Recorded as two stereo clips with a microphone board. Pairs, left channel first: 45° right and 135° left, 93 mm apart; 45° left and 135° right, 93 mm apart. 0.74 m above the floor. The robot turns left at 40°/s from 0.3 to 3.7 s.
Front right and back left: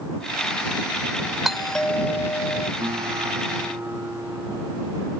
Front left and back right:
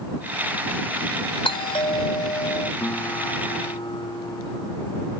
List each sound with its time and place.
1.4 s a doorbell: 50° left; by 2.7 s straight ahead
2.8 s a guitar: 105° left; by 5.1 s 70° left